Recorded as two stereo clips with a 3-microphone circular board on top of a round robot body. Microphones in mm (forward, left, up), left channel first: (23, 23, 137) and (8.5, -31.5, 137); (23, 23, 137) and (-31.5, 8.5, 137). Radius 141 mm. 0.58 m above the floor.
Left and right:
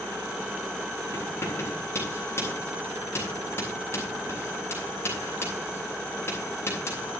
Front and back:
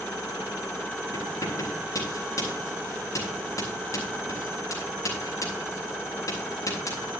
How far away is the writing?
About 9 m.